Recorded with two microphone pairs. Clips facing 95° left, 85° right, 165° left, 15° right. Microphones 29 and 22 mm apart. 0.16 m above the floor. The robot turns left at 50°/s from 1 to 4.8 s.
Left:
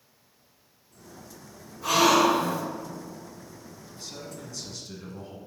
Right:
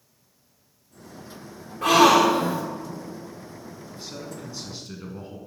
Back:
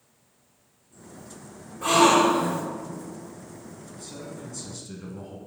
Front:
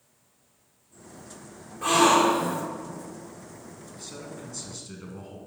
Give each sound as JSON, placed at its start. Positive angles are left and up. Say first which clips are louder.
{"t": 1.8, "sound": "a gasp", "louder": "right 4 dB, back 1 dB", "azimuth_deg": -95, "distance_m": 1.9}
{"t": 3.9, "sound": "a man speaking", "louder": "right 2 dB, back 1 dB", "azimuth_deg": -30, "distance_m": 1.1}